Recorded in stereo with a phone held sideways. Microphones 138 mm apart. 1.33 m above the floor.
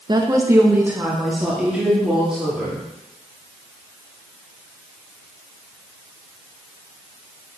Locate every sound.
0.1 s a woman speaking: 35° right (ahead or behind), 1.0 m; by 2.8 s 5° right (ahead or behind), 4 m